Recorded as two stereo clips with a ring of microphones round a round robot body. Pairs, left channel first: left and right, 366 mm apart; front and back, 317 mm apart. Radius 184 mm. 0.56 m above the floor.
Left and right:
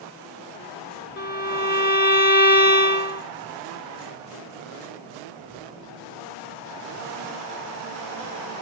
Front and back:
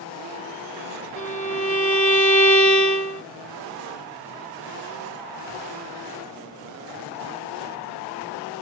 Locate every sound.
1.2 s a violin: 45° left, 0.7 m